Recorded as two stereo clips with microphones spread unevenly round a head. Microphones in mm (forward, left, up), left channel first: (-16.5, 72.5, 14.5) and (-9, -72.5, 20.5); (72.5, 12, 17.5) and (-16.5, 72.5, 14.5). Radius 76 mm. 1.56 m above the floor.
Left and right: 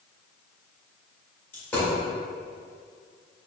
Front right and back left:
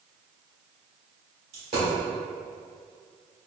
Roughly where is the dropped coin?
Behind.